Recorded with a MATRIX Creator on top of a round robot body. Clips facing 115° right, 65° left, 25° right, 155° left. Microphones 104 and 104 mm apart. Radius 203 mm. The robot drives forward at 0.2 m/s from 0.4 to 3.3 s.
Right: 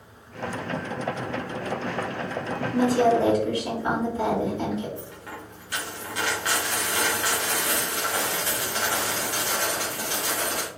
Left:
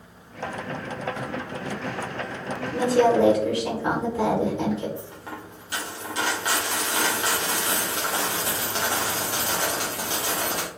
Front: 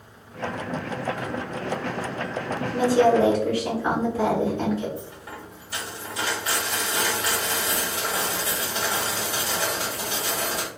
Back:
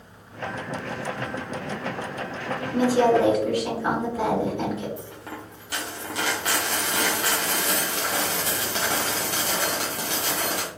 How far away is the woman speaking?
About 1.3 m.